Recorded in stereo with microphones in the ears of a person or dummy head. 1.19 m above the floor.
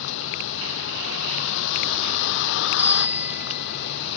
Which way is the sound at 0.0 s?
70° left (ahead or behind).